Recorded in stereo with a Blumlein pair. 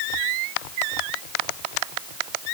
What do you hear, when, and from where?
Only background noise.